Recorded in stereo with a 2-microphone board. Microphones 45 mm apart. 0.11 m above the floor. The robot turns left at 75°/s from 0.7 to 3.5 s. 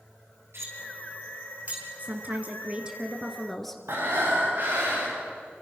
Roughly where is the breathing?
Right.